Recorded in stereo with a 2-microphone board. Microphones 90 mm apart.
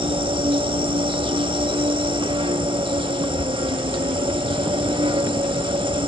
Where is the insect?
65° right (ahead or behind), 1.0 m.